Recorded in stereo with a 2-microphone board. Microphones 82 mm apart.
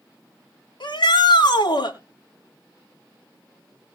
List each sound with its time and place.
0.8 s a shout: 70° left (ahead or behind), 6.5 m